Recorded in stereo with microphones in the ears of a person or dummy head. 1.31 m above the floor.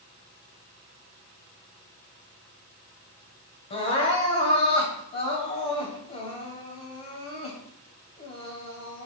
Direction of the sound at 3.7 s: 35° left (ahead or behind).